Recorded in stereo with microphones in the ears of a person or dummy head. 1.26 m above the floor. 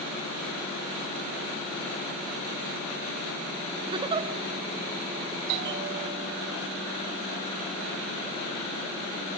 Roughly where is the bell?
Right.